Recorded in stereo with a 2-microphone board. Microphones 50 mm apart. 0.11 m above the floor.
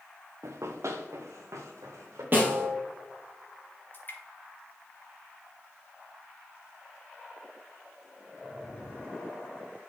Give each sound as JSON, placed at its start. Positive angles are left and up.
{"t": 0.4, "sound": "running footsteps", "side_deg": -70, "distance_m": 0.7}
{"t": 2.3, "sound": "a snare drum", "side_deg": -40, "distance_m": 2.0}
{"t": 3.9, "sound": "dripping", "side_deg": 35, "distance_m": 2.5}